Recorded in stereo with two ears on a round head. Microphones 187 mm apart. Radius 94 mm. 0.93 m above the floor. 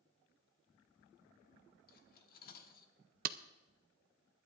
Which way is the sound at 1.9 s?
45° left (ahead or behind).